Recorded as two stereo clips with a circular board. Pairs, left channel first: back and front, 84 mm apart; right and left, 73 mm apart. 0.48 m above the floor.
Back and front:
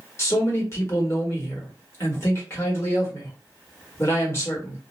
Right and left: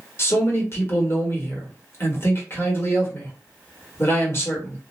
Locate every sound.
0.2 s a man speaking: 130° right, 1.1 m